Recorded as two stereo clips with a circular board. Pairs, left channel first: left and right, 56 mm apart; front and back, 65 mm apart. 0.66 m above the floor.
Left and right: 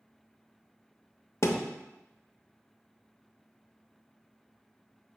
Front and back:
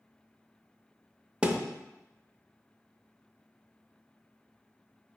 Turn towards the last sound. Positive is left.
turn(degrees=110)